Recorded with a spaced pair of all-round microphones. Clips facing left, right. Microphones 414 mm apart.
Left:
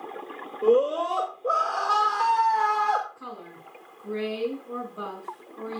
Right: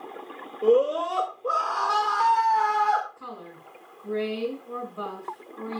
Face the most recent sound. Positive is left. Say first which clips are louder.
# even
turn(degrees=0)  # may be behind; listen again after turning